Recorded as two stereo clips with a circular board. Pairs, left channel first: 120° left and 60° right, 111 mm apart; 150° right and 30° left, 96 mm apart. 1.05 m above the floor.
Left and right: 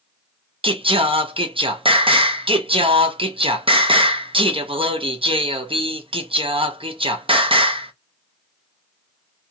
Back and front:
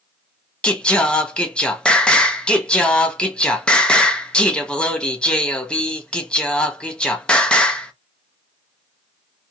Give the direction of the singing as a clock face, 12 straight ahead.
2 o'clock.